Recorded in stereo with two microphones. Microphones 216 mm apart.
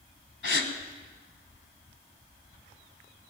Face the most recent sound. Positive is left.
turn(degrees=60)  # may be behind; listen again after turning